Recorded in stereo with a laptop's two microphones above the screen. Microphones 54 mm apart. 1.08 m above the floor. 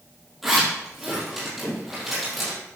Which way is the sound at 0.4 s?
5° right (ahead or behind).